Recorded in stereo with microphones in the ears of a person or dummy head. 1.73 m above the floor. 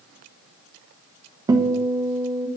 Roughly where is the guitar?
Centre.